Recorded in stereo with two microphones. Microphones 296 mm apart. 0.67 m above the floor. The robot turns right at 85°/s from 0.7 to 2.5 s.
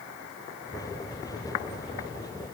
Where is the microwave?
No microwave in this recording.